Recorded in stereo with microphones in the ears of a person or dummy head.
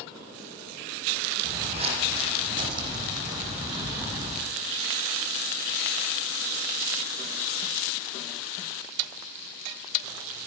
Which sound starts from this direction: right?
Footsteps, at 1.4 s.